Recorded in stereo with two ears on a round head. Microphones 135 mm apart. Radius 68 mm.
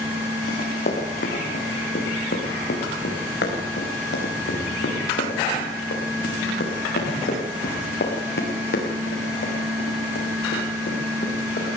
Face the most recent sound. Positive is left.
turn(degrees=60)  # may be behind; listen again after turning